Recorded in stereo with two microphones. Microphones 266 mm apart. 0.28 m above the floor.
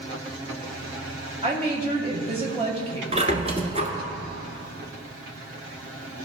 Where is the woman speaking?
20° right (ahead or behind), 1.3 m.